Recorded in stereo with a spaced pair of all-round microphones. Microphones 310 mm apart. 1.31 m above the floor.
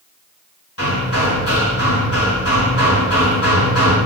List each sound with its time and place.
0.8 s hammering: 45° left (ahead or behind), 5 m